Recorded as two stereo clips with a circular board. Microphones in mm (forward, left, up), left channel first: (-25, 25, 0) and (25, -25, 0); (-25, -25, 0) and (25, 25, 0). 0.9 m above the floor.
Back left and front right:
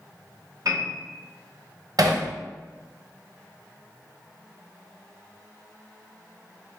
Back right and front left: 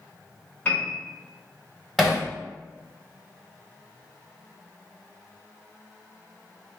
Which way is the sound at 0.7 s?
75° right.